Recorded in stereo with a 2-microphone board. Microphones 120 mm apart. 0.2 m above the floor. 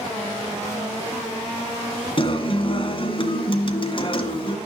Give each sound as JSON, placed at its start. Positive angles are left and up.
{"t": 2.2, "sound": "a guitar", "side_deg": 45, "distance_m": 1.9}